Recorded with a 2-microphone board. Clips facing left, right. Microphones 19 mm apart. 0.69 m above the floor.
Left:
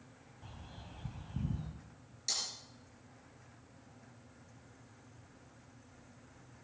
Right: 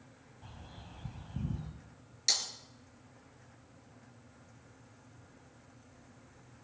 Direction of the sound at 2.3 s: 35° right (ahead or behind).